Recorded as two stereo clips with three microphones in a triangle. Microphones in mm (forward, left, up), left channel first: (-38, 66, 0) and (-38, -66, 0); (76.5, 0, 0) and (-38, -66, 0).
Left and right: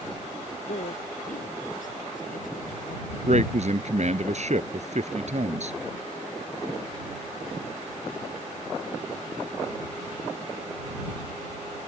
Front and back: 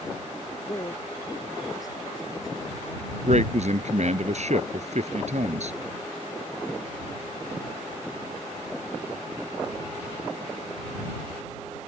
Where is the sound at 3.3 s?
120° right.